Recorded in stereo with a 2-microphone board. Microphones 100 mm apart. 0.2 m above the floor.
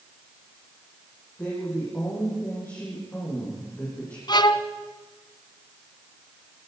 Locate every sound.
1.4 s a woman speaking: 20° left (ahead or behind), 8 m
4.3 s a violin: 45° left (ahead or behind), 1.1 m